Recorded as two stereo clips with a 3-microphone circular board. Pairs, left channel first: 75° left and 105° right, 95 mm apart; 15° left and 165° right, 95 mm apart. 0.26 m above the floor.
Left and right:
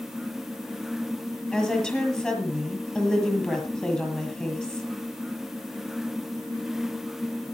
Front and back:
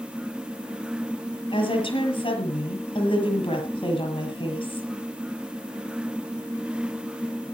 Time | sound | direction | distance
1.5 | a woman speaking | 5° right | 7 m